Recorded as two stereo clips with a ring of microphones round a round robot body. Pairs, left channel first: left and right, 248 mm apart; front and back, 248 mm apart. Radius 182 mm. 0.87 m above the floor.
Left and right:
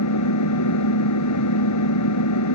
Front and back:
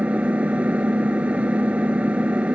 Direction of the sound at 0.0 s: 95° left.